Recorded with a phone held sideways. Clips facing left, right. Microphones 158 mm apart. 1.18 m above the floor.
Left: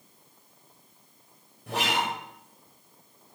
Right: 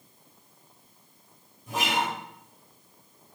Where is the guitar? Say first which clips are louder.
Even; 70° left (ahead or behind), 6.5 m.